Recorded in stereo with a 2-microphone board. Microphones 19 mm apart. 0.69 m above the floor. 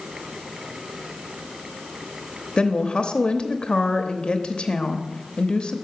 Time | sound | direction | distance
2.6 | a woman speaking | 50° left (ahead or behind) | 0.8 m